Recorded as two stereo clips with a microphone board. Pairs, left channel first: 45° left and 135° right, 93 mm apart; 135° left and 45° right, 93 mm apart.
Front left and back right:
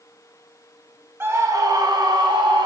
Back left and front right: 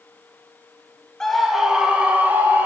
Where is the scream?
150° right, 0.8 m; by 2.7 s 110° right, 1.6 m.